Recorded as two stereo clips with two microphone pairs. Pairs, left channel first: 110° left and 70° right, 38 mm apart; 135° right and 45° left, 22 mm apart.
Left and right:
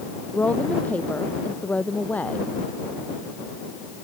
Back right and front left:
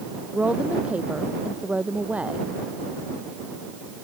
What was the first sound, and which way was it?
A woman speaking, 60° left.